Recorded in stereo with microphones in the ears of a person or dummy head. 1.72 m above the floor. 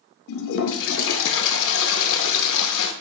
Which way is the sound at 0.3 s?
70° left (ahead or behind).